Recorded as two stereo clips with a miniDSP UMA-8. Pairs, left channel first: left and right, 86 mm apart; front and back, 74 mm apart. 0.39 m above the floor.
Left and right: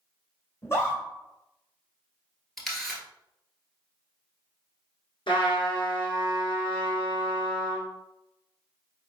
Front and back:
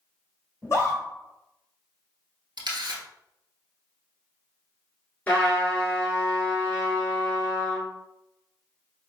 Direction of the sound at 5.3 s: 70° left.